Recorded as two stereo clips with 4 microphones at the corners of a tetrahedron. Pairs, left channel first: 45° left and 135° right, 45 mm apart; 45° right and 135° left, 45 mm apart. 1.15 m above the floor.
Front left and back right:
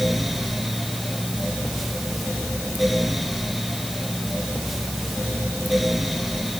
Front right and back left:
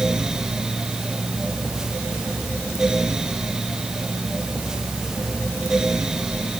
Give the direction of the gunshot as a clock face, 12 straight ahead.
I don't hear a gunshot.